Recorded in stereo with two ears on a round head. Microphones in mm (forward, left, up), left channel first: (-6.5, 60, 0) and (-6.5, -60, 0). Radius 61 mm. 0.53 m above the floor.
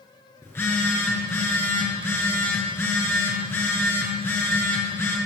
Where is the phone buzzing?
20° left (ahead or behind), 6.5 m.